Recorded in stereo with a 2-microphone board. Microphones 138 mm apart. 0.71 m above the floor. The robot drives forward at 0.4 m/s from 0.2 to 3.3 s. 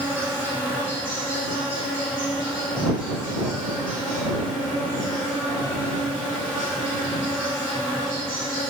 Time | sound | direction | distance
0.0 | an insect | 15° right (ahead or behind) | 0.9 m